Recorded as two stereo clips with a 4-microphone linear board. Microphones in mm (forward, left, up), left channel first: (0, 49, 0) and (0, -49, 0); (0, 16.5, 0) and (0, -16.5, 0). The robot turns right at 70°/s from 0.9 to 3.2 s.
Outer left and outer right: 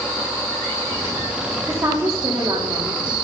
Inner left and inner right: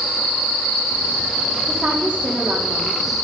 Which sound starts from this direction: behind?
A woman speaking, at 1.7 s.